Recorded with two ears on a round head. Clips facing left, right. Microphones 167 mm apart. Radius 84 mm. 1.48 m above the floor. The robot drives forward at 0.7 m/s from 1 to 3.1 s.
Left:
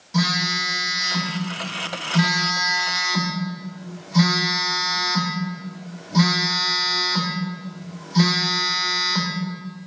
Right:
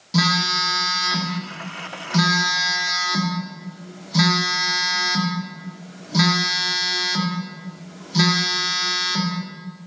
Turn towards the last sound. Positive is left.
turn(degrees=-45)  # may be behind; listen again after turning